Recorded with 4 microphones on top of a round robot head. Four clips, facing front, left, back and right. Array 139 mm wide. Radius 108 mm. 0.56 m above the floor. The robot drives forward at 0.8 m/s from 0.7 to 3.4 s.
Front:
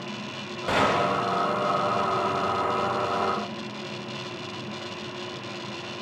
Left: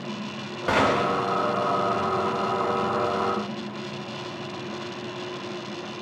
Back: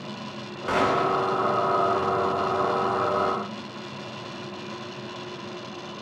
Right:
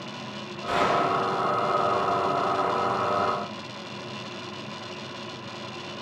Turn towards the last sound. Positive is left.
turn(degrees=140)